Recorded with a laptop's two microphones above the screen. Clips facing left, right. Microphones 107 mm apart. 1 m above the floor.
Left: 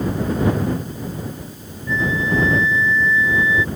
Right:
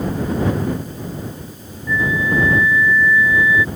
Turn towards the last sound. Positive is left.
turn(degrees=25)  # may be behind; listen again after turning